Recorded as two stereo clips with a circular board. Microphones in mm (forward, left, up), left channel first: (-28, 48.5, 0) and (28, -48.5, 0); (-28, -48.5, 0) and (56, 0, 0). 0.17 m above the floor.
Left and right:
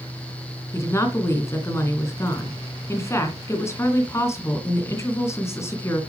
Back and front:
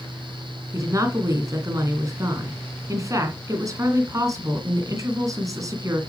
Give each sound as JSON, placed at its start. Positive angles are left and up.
{"t": 0.7, "sound": "a woman speaking", "azimuth_deg": 65, "distance_m": 2.0}